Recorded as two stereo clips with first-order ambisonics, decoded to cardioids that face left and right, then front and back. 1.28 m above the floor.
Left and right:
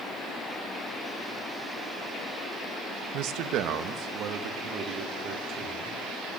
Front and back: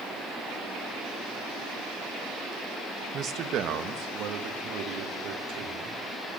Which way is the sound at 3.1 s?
125° right.